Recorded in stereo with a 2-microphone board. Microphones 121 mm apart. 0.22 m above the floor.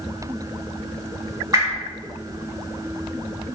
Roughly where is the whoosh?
Right.